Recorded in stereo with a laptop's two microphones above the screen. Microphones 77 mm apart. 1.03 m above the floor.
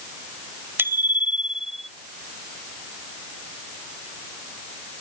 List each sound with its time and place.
0.8 s a bicycle bell: 30° right (ahead or behind); by 1.9 s centre (ahead or behind)